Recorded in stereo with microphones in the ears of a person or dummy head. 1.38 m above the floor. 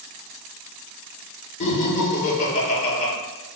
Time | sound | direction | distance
1.6 | laughter | 40° left (ahead or behind) | 1.1 m